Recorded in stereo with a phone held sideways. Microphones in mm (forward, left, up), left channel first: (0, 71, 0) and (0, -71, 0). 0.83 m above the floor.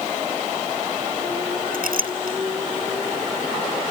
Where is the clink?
85° right.